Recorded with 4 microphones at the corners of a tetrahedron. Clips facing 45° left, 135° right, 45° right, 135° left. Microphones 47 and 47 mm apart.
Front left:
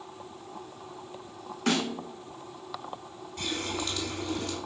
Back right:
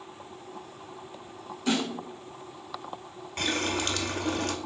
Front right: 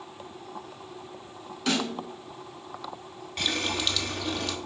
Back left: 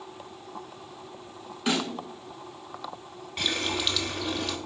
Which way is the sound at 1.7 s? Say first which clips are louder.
Even, even; 60° left.